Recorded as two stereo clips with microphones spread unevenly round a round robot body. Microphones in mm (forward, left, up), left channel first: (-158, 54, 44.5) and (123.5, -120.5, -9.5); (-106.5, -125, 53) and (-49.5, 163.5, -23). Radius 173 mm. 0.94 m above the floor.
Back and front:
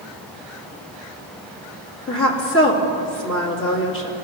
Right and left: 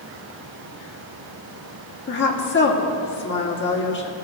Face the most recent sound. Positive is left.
turn(degrees=-160)